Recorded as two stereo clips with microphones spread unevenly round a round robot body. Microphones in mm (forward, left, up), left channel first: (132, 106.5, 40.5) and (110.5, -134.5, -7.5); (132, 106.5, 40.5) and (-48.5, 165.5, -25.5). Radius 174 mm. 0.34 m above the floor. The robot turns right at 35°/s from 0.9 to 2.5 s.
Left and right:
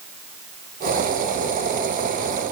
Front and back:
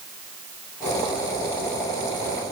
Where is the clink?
No clink in this recording.